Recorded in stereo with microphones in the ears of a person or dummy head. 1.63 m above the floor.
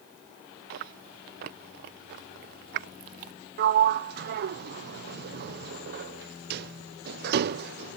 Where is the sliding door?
60° right (ahead or behind).